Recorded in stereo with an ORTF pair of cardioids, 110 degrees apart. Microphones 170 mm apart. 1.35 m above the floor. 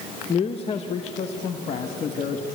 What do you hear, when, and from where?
0.3 s a man speaking: 35° left, 0.9 m; by 2.5 s 45° left, 2 m